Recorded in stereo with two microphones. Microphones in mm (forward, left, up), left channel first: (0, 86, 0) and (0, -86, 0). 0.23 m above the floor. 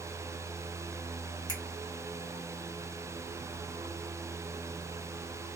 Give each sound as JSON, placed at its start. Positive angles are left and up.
{"t": 1.5, "sound": "a finger snap", "side_deg": 30, "distance_m": 1.1}